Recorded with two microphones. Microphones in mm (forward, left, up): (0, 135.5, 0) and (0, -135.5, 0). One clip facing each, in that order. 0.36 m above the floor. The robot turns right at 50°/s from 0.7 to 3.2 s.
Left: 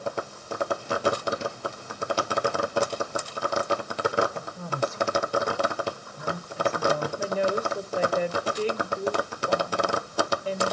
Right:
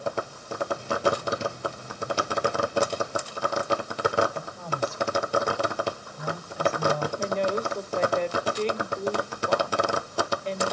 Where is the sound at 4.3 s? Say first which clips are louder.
Even; 30° left (ahead or behind), 1.9 m.